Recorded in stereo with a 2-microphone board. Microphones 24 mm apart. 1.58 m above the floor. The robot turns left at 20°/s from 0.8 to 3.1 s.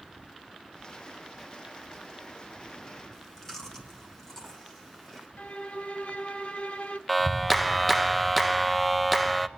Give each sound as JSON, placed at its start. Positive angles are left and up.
{"t": 3.1, "sound": "chewing", "side_deg": 25, "distance_m": 2.5}
{"t": 5.4, "sound": "a violin", "side_deg": 60, "distance_m": 0.8}
{"t": 7.1, "sound": "a clap", "side_deg": 0, "distance_m": 0.5}